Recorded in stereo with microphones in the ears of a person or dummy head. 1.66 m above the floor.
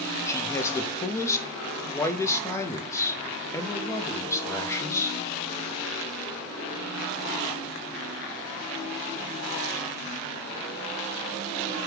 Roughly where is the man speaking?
Centre.